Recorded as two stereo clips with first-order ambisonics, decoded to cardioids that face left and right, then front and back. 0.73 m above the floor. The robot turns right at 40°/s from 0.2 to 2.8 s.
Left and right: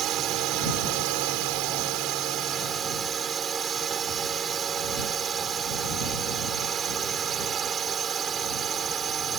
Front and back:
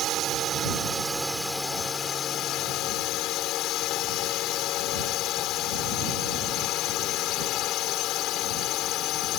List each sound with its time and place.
0.0 s a drone: 135° right; by 9.4 s 30° right